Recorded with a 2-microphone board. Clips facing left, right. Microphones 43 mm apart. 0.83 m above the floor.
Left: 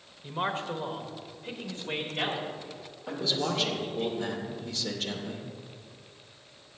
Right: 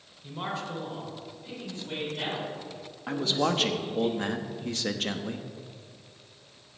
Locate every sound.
0.2 s a man speaking: 25° left (ahead or behind), 1.0 m; by 4.1 s 40° left (ahead or behind), 5 m
3.1 s a man speaking: 50° right (ahead or behind), 1.0 m